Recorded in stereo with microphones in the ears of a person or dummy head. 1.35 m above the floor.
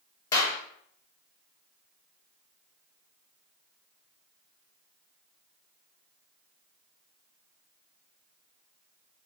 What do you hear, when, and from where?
0.3 s a clap: 20° left (ahead or behind), 0.7 m